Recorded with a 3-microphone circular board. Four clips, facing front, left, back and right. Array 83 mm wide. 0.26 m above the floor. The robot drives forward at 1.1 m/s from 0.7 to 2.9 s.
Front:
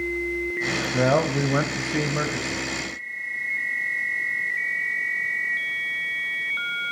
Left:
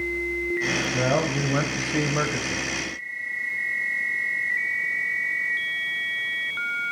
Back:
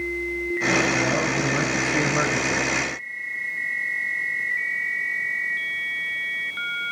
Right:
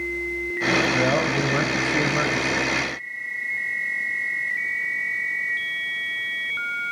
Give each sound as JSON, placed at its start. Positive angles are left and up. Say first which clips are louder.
{"t": 0.9, "sound": "a man speaking", "louder": "right 2 dB, front 2 dB", "azimuth_deg": 0, "distance_m": 1.4}